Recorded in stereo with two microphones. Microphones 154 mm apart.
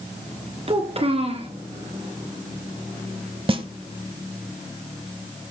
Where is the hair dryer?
I don't hear a hair dryer.